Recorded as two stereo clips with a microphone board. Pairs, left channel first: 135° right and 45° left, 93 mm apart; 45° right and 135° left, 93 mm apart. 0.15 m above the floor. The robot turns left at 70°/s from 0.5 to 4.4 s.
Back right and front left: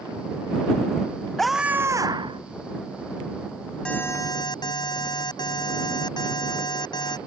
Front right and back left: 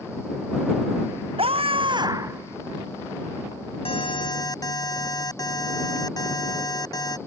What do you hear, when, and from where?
1.4 s a scream: 140° left; by 2.4 s 70° left
3.9 s an alarm: 55° right; by 7.2 s 95° right